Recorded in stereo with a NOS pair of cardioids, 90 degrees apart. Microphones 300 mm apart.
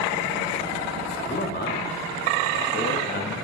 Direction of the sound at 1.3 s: 35° left.